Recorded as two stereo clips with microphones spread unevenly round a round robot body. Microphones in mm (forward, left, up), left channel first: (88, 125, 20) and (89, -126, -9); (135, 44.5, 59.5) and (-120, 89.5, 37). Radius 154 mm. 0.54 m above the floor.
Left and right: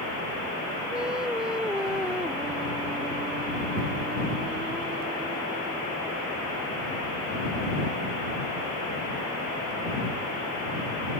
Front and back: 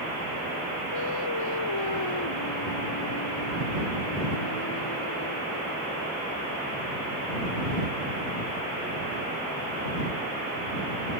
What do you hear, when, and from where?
0.9 s singing: 5° right